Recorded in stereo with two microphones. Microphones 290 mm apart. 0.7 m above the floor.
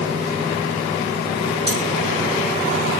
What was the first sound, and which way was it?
Cutlery clinking, 20° right (ahead or behind).